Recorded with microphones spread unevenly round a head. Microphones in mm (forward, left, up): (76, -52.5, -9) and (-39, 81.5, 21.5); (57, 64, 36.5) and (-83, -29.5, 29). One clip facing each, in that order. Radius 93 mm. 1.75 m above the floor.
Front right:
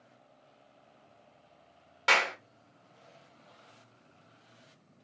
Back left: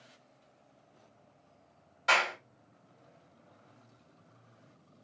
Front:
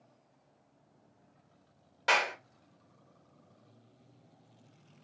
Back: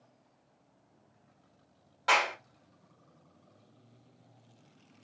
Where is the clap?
35° right, 1.4 m.